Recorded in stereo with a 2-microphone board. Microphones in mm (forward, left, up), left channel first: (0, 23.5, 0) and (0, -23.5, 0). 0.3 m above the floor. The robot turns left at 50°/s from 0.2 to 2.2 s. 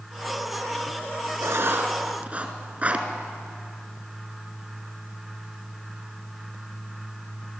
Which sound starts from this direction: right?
Writing, at 1.4 s.